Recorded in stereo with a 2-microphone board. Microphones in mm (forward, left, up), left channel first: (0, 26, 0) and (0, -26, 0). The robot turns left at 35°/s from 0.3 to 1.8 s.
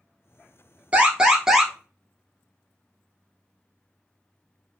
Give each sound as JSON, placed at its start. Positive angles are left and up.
{"t": 0.9, "sound": "an alarm", "side_deg": -25, "distance_m": 1.3}